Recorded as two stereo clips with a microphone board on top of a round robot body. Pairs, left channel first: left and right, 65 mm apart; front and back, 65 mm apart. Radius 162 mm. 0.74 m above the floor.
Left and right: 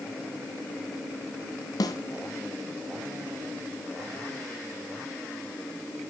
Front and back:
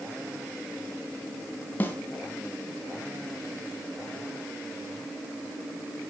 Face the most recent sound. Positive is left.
turn(degrees=65)